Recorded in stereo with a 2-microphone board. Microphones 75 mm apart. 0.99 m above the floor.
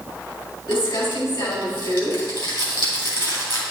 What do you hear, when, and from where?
0.7 s crumpling: 80° left, 3 m